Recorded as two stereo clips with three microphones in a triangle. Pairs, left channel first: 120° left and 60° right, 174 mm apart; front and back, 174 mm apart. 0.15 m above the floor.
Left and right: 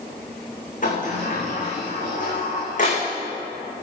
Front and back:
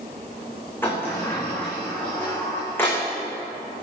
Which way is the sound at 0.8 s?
75° left.